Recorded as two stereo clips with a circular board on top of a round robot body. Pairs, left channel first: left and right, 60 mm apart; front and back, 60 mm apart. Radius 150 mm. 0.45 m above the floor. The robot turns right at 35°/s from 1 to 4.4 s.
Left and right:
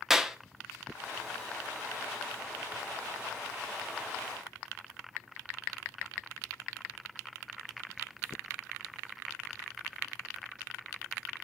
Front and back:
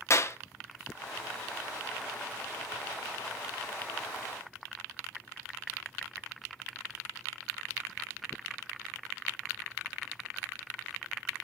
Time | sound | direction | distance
0.1 | a clap | 10° right | 1.4 m